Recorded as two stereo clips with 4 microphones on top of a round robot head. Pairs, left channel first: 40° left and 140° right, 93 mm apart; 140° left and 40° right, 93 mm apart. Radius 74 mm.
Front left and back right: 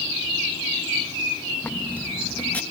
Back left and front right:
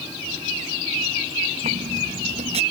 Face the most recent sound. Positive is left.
turn(degrees=-35)